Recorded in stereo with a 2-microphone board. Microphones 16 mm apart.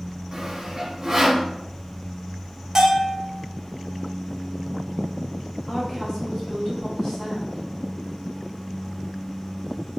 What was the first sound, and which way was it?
Sawing, 30° right (ahead or behind).